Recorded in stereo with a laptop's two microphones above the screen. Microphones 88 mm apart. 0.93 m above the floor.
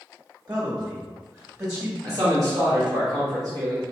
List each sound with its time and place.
0.5 s a man speaking: 50° right (ahead or behind), 1.3 m; by 1.9 s 30° right (ahead or behind), 1.2 m
2.0 s a man speaking: 45° right (ahead or behind), 1.2 m